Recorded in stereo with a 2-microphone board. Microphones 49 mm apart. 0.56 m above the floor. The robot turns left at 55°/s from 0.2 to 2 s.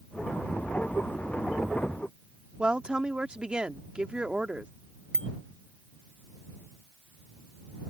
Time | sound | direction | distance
2.6 | a woman speaking | 20° right (ahead or behind) | ?
5.1 | a bicycle bell | 20° left (ahead or behind) | ?